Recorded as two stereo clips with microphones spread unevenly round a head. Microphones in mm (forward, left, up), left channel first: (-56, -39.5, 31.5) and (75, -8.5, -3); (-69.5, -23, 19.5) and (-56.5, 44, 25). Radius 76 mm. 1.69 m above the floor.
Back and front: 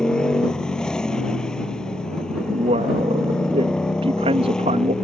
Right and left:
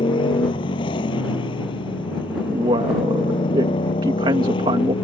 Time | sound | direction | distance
0.0 | a motorcycle | 85° right | ?
2.5 | a man speaking | 75° left | ?